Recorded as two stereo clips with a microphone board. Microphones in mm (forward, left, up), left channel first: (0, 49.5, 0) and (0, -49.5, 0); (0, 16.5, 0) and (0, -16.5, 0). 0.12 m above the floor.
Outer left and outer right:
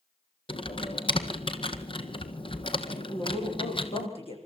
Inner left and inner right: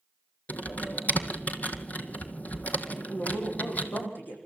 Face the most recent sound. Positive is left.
turn(degrees=70)  # may be behind; listen again after turning